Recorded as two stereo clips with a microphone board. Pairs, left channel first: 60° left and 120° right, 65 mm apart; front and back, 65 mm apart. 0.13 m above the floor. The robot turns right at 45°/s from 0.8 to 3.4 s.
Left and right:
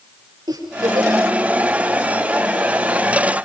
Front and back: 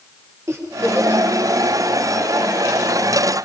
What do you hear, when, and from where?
0.5 s a giggle: 130° right, 8.5 m; by 1.2 s 110° right, 8.5 m